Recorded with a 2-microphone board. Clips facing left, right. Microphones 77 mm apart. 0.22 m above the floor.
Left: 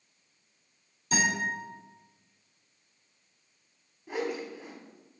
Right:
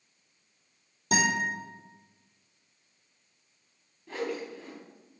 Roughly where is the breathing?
I don't hear breathing.